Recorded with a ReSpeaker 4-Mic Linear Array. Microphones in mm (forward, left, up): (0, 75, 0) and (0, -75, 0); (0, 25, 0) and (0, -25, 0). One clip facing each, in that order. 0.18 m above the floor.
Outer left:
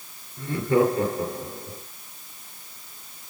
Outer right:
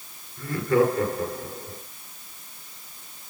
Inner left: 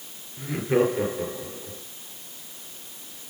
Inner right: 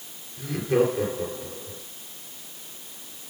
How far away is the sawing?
No sawing in this recording.